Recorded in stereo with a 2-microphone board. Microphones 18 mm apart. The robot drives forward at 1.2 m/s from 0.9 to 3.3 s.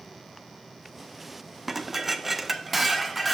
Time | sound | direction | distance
1.7 | dishes clattering | 10° right (ahead or behind) | 0.9 m